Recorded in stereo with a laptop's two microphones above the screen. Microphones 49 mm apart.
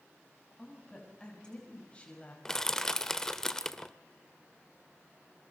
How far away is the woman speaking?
About 6.5 m.